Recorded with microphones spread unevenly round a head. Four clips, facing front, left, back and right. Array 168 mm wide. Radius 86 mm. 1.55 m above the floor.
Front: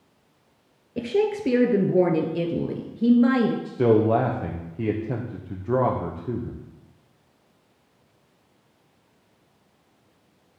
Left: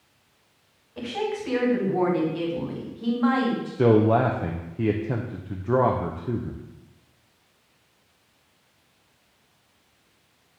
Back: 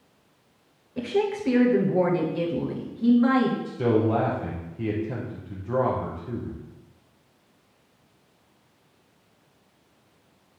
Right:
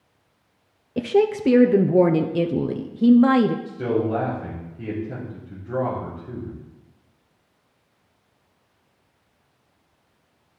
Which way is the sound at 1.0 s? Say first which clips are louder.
Right 9 dB, front 2 dB; 75° right.